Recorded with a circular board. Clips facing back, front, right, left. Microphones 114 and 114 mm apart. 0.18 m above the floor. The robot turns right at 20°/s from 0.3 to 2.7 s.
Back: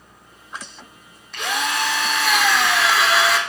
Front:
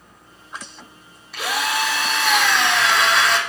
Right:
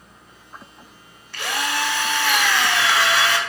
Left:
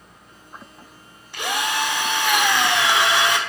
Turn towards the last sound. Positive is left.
turn(degrees=100)